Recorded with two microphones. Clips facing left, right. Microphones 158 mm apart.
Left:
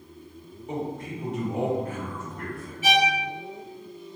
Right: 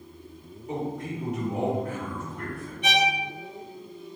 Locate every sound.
0.7 s a man speaking: 25° left (ahead or behind), 1.8 m; by 2.7 s 45° left (ahead or behind), 1.4 m
2.8 s a violin: 5° left (ahead or behind), 0.9 m